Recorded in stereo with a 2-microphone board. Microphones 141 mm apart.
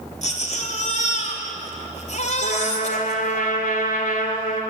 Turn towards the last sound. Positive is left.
turn(degrees=75)  # may be behind; listen again after turning